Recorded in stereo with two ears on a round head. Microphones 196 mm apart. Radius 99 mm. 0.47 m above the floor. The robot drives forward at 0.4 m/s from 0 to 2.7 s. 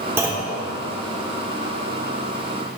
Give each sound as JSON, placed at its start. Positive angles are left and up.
{"t": 0.2, "sound": "a clunk", "side_deg": -10, "distance_m": 1.0}